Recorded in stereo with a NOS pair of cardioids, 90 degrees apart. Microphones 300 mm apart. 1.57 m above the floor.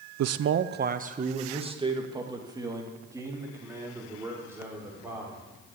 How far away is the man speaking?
About 0.7 m.